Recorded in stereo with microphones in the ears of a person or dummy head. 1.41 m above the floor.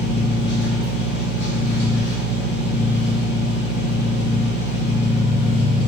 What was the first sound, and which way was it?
An engine running, 65° left (ahead or behind).